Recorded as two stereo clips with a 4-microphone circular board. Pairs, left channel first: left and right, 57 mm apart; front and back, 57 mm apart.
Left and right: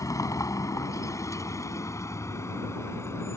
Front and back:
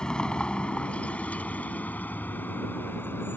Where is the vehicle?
75° left; by 3.4 s 50° left.